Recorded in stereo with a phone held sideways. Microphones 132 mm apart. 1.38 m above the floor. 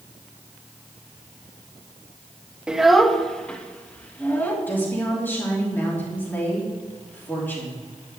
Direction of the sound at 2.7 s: 5° right (ahead or behind).